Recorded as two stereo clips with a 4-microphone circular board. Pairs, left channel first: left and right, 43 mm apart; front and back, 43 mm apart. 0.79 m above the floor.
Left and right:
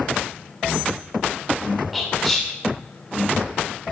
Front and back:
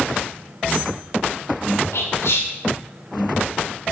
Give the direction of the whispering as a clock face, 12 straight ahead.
12 o'clock.